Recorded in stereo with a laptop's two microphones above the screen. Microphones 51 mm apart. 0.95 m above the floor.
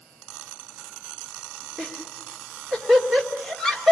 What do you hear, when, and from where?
1.8 s laughter: 10° left (ahead or behind), 2 m